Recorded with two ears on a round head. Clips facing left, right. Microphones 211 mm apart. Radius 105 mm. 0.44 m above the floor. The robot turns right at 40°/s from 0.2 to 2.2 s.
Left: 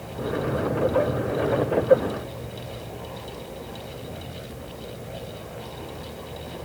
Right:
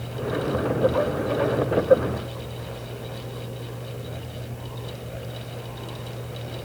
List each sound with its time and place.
Only background noise.